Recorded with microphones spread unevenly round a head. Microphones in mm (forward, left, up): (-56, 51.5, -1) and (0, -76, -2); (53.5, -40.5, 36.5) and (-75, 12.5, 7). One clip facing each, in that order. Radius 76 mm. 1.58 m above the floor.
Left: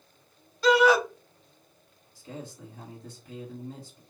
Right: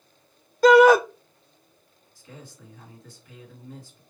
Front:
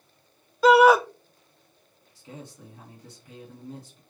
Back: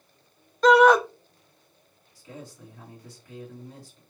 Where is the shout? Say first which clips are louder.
Right 7 dB, even; 110° right, 0.6 m.